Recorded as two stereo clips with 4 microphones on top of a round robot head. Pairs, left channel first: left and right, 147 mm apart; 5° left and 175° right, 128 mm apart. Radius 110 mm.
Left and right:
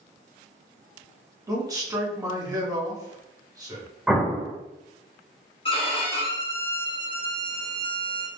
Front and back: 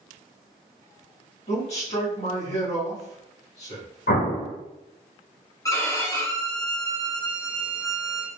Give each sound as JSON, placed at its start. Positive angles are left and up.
{"t": 1.5, "sound": "a man speaking", "azimuth_deg": -25, "distance_m": 1.7}
{"t": 4.1, "sound": "an explosion", "azimuth_deg": 0, "distance_m": 0.9}
{"t": 5.7, "sound": "a violin", "azimuth_deg": 60, "distance_m": 1.2}